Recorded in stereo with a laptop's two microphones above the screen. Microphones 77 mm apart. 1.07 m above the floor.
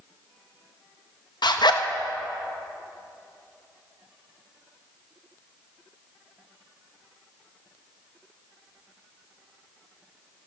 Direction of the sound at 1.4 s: 70° left (ahead or behind).